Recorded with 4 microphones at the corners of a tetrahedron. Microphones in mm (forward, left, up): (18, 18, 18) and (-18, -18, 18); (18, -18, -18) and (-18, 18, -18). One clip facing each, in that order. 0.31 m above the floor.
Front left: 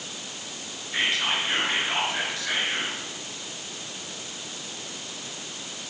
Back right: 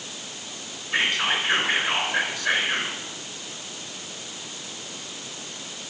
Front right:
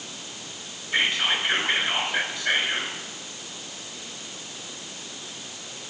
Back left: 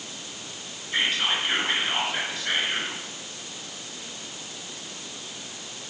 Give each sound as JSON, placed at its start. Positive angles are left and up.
{"t": 0.9, "sound": "whispering", "azimuth_deg": -120, "distance_m": 3.5}